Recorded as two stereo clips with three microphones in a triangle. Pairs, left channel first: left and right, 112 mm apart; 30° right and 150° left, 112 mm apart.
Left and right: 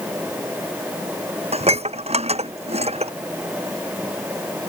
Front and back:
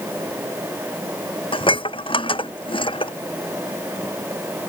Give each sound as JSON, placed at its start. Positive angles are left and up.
{"t": 1.5, "sound": "dishes clattering", "azimuth_deg": -70}